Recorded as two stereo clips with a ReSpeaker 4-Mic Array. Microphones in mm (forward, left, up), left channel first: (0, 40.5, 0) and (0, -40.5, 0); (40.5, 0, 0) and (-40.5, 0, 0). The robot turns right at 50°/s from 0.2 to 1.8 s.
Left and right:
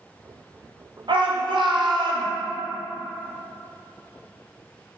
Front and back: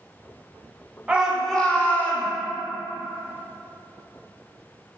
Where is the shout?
105° right, 0.7 m; by 2.3 s 70° right, 0.7 m.